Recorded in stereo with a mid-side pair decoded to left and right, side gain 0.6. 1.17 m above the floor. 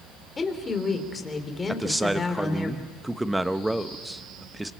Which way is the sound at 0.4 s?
25° left.